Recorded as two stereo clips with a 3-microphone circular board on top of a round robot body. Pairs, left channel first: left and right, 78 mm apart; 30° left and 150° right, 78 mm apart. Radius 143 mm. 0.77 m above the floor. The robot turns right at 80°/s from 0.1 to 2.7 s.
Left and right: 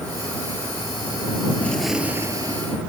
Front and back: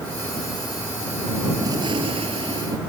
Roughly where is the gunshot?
Behind.